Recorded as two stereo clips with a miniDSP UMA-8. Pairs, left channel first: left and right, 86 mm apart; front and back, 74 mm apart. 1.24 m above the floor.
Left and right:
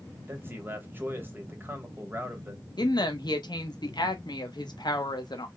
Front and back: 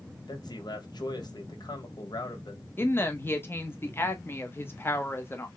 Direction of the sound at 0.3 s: 25° right.